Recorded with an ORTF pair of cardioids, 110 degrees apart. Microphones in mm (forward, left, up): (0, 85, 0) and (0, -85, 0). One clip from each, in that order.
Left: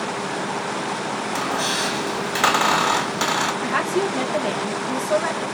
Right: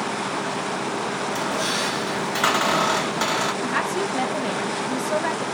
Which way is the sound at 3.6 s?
5° left.